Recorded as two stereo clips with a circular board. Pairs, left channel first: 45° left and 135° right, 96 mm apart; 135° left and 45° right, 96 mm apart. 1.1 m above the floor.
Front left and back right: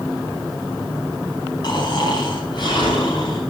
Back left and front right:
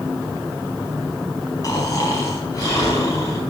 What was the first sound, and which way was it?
Snoring, 85° left.